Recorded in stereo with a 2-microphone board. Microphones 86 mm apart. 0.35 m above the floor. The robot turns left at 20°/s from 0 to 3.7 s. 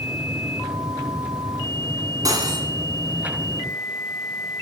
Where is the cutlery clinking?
45° right (ahead or behind), 1.7 m; by 2.7 s 50° right (ahead or behind), 1.7 m.